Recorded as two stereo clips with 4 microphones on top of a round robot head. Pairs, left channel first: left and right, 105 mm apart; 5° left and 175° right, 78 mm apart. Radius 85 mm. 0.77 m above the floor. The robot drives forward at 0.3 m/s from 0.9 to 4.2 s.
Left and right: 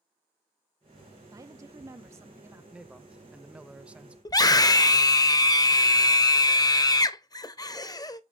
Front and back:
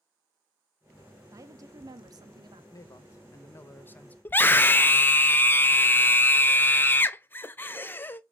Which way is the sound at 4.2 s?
55° left.